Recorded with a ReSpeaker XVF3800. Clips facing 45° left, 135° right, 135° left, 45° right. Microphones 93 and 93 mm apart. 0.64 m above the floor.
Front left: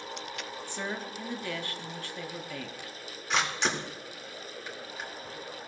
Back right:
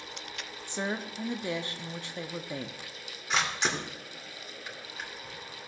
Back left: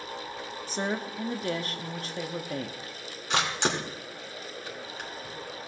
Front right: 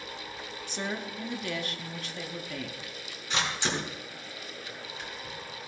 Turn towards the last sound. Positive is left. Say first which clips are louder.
# front left 1 dB, back left 3 dB
turn(degrees=135)